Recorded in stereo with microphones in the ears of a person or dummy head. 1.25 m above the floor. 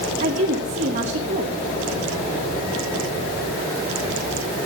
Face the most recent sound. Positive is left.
turn(degrees=-35)  # may be behind; listen again after turning